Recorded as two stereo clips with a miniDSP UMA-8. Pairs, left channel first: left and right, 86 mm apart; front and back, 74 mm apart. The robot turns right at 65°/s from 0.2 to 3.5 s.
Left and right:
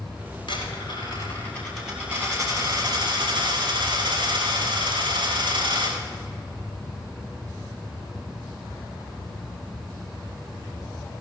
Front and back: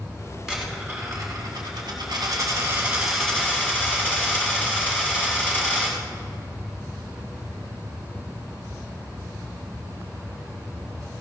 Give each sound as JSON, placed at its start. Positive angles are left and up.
{"t": 0.5, "sound": "a dropped coin", "azimuth_deg": 95, "distance_m": 7.0}